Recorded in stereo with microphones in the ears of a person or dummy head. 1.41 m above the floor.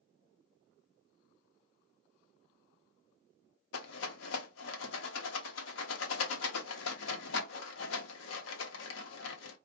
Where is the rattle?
75° left (ahead or behind), 0.8 m.